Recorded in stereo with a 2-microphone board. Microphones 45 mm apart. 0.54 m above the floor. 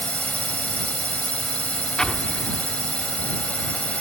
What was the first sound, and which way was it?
A drone, 35° left (ahead or behind).